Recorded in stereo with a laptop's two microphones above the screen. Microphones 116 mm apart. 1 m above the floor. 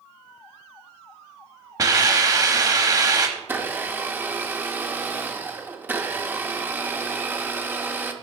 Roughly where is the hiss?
Right.